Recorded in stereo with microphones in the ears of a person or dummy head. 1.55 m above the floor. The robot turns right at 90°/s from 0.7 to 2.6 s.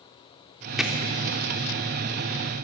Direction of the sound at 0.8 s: Centre (ahead or behind).